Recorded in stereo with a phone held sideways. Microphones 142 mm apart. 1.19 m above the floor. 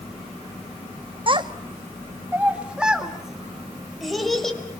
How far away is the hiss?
I don't hear a hiss.